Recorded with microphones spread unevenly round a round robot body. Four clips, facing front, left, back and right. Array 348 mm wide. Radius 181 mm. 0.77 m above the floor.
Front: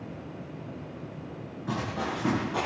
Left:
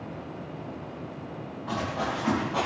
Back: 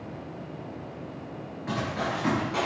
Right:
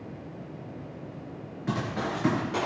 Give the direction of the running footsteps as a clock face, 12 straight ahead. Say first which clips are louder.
Even, back 2 dB; 3 o'clock.